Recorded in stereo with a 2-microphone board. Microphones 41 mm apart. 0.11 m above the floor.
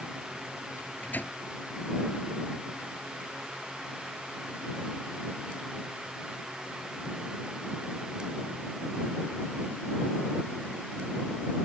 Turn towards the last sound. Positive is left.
turn(degrees=50)  # may be behind; listen again after turning